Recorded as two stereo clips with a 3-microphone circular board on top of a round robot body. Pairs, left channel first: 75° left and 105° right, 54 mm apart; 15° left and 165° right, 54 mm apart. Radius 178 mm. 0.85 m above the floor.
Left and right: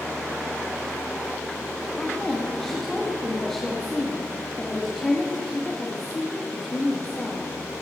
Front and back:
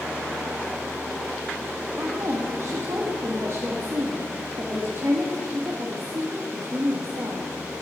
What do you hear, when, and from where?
2.0 s a woman speaking: 160° left, 1.6 m